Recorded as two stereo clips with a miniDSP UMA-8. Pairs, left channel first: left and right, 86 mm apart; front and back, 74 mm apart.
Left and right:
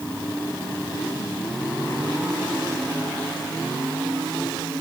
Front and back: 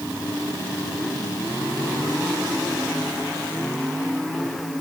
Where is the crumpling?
I don't hear crumpling.